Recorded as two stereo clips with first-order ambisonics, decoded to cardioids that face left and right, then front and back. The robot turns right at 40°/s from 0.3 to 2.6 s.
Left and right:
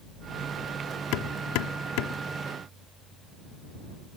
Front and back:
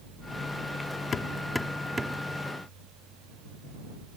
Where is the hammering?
65° left; by 2.2 s 110° left.